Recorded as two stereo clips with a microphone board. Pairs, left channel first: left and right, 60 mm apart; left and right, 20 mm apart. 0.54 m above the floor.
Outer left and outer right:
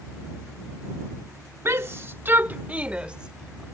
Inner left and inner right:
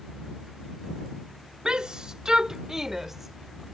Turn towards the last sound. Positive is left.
turn(degrees=-10)  # may be behind; listen again after turning